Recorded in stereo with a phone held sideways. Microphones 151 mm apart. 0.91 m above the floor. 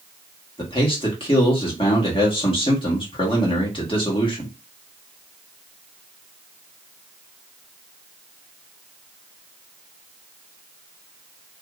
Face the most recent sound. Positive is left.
turn(degrees=35)  # may be behind; listen again after turning